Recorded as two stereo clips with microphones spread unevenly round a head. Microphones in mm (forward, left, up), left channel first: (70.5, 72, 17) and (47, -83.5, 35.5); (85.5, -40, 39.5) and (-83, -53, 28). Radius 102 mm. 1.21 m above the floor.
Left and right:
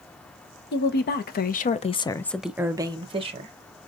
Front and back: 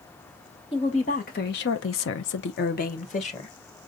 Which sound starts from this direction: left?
A woman speaking, at 0.7 s.